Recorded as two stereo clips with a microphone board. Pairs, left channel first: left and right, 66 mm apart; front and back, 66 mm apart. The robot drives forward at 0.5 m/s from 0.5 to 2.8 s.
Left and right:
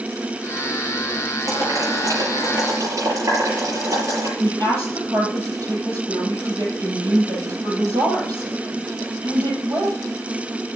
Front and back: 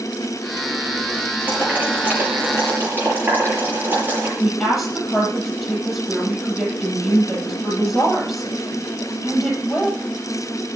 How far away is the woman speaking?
About 7 m.